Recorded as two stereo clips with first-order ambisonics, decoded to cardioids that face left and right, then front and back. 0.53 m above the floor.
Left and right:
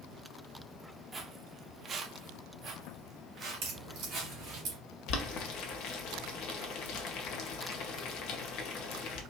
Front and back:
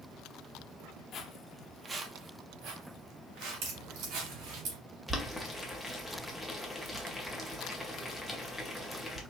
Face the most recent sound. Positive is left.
turn(degrees=90)